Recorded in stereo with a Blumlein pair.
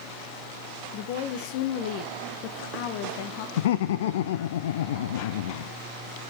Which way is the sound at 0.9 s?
45° left.